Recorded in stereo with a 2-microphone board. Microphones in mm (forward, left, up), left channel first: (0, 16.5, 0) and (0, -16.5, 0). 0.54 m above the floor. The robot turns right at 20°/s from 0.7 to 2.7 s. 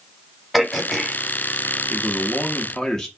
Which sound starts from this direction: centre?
Throat clearing, at 0.5 s.